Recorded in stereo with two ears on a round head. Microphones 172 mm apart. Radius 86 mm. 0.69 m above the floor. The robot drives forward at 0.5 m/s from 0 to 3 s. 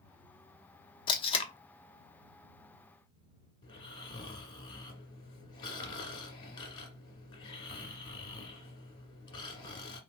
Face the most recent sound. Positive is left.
turn(degrees=25)  # may be behind; listen again after turning